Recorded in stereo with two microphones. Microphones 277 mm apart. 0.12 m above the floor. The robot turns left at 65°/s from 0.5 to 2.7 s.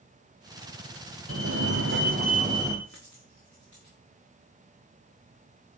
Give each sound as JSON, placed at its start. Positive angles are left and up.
{"t": 1.3, "sound": "a fire alarm", "azimuth_deg": -75, "distance_m": 3.5}
{"t": 2.9, "sound": "a dropped coin", "side_deg": 80, "distance_m": 6.5}